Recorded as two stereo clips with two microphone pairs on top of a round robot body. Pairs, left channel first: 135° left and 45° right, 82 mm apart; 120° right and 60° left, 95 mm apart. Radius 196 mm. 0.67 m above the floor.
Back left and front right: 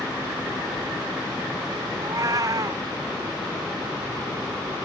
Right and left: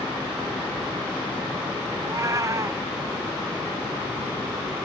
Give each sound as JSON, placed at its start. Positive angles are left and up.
{"t": 2.0, "sound": "a cat meowing", "azimuth_deg": 5}